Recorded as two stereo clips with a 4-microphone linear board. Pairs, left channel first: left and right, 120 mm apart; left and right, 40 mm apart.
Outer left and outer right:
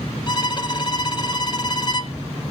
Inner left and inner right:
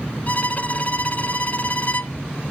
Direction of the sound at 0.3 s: 40° left (ahead or behind).